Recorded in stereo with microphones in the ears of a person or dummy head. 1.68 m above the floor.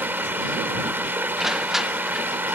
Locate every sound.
0.0 s running water: 10° right (ahead or behind)
1.4 s crushing: centre (ahead or behind)